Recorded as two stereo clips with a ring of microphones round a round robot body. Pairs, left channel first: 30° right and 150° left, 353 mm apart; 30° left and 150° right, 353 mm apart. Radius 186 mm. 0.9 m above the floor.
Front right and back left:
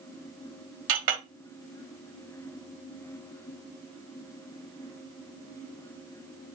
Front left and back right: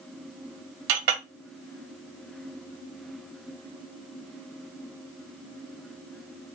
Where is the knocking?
No knocking in this recording.